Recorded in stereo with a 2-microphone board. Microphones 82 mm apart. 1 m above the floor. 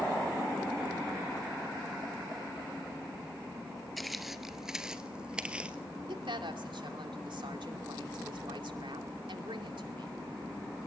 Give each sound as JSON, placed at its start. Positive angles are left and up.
{"t": 4.0, "sound": "footsteps", "side_deg": 0, "distance_m": 1.0}
{"t": 6.1, "sound": "a woman speaking", "side_deg": -75, "distance_m": 2.5}